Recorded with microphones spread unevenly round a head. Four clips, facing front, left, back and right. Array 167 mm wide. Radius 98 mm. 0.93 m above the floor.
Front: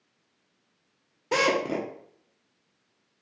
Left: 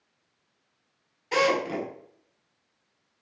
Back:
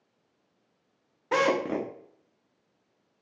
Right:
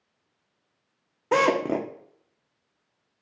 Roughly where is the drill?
Right.